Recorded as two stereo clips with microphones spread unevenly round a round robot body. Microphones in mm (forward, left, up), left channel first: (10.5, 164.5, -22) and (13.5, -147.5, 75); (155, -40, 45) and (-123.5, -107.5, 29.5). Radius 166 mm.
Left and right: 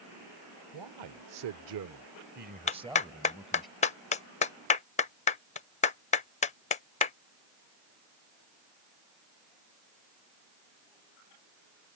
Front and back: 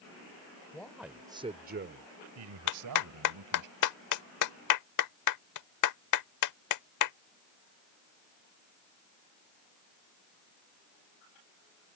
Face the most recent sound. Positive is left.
turn(degrees=30)